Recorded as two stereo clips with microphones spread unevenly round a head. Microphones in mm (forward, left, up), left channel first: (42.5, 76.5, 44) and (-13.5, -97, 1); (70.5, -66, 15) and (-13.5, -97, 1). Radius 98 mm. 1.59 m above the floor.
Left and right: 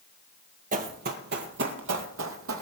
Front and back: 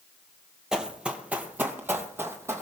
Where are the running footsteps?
70° right, 1.9 m; by 2.6 s 95° right, 2.5 m.